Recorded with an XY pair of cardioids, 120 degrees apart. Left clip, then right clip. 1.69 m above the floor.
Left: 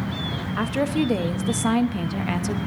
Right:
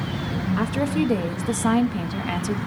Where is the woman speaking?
5° left, 0.9 m.